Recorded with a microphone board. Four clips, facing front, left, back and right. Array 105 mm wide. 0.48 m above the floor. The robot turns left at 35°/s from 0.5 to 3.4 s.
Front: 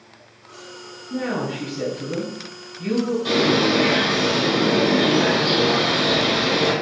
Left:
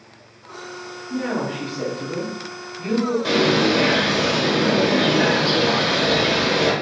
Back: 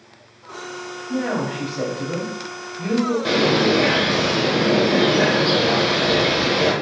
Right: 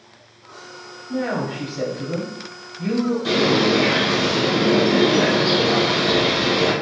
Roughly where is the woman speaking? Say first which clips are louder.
Right 1 dB, back 2 dB; behind right.